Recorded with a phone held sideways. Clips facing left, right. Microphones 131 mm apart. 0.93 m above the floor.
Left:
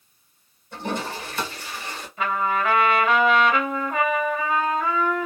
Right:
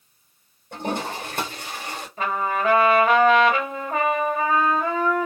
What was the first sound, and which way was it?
A toilet flushing, 60° right (ahead or behind).